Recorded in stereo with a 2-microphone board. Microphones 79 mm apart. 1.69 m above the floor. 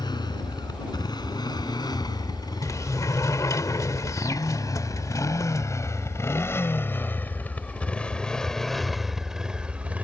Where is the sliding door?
45° left (ahead or behind).